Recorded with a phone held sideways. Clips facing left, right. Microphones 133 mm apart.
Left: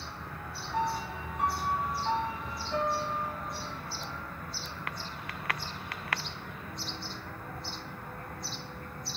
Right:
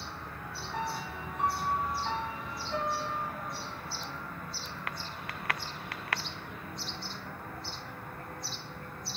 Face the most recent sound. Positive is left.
turn(degrees=10)  # may be behind; listen again after turning